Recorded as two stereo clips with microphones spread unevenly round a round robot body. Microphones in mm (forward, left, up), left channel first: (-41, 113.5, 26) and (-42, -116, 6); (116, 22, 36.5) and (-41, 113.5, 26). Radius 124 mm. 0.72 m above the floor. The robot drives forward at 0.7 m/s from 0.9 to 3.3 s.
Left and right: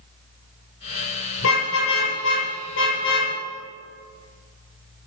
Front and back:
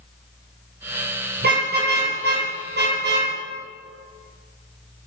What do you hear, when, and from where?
1.4 s a car horn: 120° left, 9 m; by 3.3 s 125° left, 9.5 m